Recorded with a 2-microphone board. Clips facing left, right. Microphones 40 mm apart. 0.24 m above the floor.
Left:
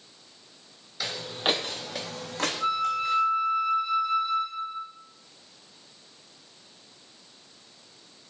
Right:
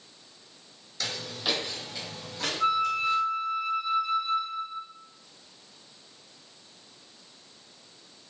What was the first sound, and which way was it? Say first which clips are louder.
Footsteps: left 4 dB; 15° left (ahead or behind).